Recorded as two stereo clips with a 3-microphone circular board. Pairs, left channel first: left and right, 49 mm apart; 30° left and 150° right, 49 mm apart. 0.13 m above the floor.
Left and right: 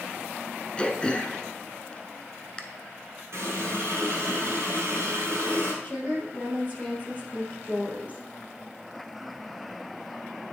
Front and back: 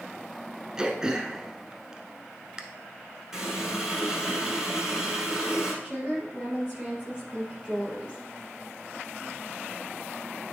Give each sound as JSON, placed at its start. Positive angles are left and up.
{"t": 0.8, "sound": "throat clearing", "azimuth_deg": 145, "distance_m": 0.7}
{"t": 3.3, "sound": "a running tap", "azimuth_deg": -70, "distance_m": 2.5}
{"t": 5.8, "sound": "a woman speaking", "azimuth_deg": 140, "distance_m": 3.0}